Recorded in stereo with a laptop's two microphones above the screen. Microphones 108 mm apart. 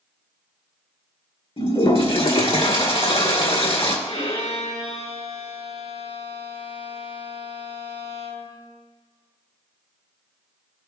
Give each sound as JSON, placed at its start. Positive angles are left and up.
{"t": 1.6, "sound": "a toilet flushing", "side_deg": 65, "distance_m": 2.0}
{"t": 4.1, "sound": "a violin", "side_deg": 75, "distance_m": 4.0}